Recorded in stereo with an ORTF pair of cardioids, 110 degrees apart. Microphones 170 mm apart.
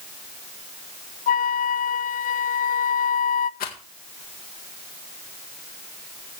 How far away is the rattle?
About 2.0 m.